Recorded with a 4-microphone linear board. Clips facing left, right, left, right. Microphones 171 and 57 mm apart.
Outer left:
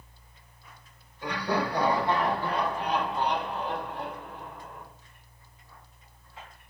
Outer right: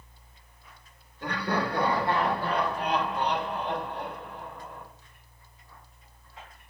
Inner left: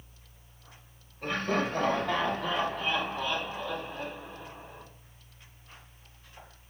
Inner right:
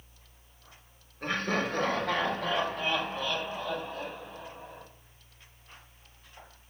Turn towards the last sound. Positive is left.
turn(degrees=-75)  # may be behind; listen again after turning